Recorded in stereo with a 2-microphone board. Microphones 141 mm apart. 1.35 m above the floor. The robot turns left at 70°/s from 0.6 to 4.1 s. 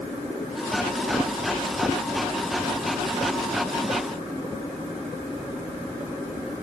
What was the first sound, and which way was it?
Only background noise.